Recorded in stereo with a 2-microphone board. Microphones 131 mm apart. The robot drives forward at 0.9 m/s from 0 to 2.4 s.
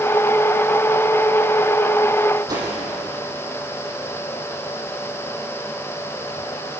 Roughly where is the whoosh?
Right.